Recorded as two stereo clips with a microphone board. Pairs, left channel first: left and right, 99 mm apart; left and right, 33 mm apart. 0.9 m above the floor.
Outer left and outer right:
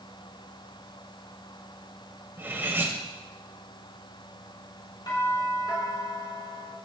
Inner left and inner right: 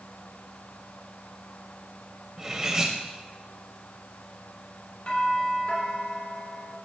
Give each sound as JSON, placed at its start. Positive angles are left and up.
{"t": 2.4, "sound": "cutlery clinking", "side_deg": -25, "distance_m": 2.0}
{"t": 5.1, "sound": "a doorbell", "side_deg": 50, "distance_m": 4.0}